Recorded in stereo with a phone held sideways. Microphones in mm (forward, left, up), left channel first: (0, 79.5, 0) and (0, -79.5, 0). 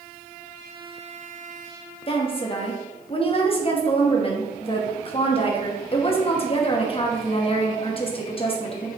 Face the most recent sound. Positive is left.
turn(degrees=35)  # may be behind; listen again after turning